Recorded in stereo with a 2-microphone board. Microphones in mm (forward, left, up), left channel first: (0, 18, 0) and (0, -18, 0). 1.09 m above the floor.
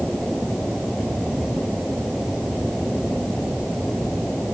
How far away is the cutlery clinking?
No cutlery clinking in this recording.